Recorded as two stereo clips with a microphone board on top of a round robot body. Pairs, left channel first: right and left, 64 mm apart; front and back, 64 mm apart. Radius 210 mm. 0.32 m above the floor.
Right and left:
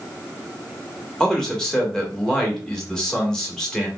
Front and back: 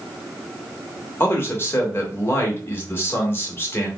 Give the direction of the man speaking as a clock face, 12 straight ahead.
12 o'clock.